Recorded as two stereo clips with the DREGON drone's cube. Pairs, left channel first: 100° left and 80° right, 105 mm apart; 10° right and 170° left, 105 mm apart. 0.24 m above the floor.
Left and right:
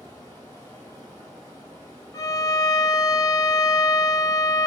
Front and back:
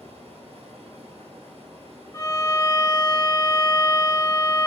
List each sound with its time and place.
0.0 s running water: 170° left, 1.5 m
2.1 s a violin: 45° left, 0.7 m